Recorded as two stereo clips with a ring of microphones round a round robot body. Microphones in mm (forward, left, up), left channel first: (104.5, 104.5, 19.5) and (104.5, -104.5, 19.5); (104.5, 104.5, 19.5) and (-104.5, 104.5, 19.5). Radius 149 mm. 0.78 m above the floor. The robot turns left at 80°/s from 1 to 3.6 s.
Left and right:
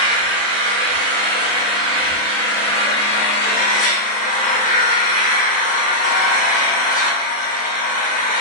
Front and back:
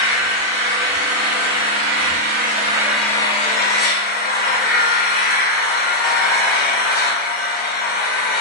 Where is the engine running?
115° right, 0.7 m; by 8.4 s 40° left, 0.7 m.